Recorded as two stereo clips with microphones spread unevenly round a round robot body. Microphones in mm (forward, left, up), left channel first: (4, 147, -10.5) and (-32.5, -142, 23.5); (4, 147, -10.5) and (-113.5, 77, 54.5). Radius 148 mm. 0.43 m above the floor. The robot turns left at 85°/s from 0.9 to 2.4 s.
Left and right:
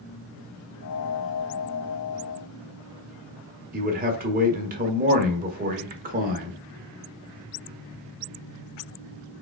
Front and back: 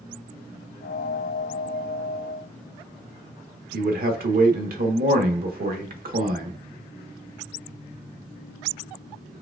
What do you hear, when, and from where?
3.7 s a man speaking: 155° right, 1.0 m